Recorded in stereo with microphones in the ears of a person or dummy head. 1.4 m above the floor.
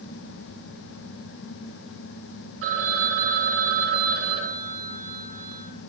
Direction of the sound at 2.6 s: 65° right (ahead or behind).